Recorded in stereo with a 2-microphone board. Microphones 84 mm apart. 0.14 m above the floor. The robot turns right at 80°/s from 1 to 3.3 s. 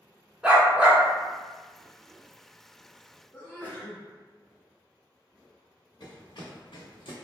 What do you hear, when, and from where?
0.4 s a dog barking: 10° right (ahead or behind), 0.7 m; by 1.0 s 15° right (ahead or behind), 0.7 m
3.3 s a sneeze: 20° left (ahead or behind), 1.1 m
6.0 s running footsteps: 60° left (ahead or behind), 1.0 m; by 7.2 s 80° left, 0.8 m